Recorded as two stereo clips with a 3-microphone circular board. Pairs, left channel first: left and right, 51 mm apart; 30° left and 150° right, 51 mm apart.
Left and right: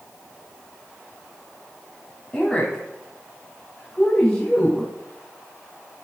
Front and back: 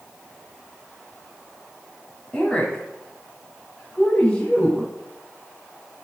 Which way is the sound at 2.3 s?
45° left.